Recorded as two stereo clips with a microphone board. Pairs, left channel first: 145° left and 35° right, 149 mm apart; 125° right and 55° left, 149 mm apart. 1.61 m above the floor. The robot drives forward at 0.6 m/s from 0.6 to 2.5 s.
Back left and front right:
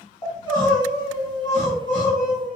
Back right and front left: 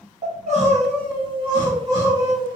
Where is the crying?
90° left, 1.5 m; by 2.6 s 130° left, 1.9 m.